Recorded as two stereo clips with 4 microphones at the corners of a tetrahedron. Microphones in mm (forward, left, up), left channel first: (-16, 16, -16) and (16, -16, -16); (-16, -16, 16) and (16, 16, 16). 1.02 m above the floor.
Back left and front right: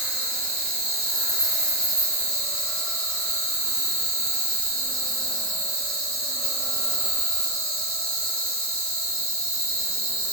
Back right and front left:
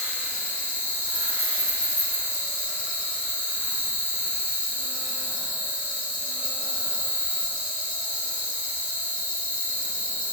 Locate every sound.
0.0 s an insect: 65° left, 2.0 m